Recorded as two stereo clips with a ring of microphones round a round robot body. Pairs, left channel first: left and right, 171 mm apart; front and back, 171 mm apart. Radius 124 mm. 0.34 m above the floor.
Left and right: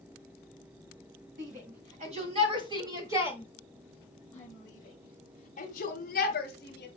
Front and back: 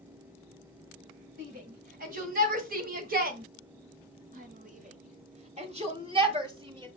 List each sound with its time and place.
1.4 s a shout: 135° right, 1.9 m; by 6.9 s 120° left, 1.9 m